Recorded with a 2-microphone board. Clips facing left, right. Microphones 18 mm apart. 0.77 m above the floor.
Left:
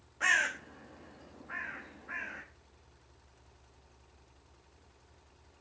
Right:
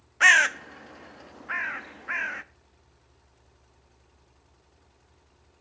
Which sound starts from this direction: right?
A bird, at 0.2 s.